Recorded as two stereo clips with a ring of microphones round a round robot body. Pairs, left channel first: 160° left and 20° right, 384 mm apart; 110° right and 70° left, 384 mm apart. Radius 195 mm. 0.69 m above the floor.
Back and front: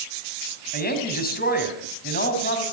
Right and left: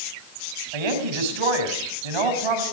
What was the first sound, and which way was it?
A woman speaking, 90° left.